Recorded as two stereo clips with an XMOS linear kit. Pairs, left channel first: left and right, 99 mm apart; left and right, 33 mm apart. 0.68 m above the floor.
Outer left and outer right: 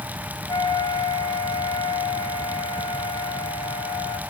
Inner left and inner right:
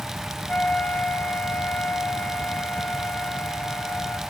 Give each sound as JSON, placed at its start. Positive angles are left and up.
{"t": 0.5, "sound": "a flute", "side_deg": 60, "distance_m": 1.2}